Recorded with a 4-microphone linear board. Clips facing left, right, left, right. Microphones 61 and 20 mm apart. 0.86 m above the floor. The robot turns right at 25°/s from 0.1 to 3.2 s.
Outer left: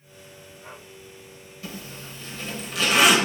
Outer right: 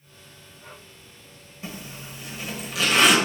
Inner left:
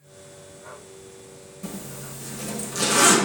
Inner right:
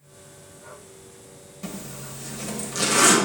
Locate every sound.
1.6 s a zipper: 25° right (ahead or behind), 0.9 m; by 3.2 s 5° left (ahead or behind), 0.9 m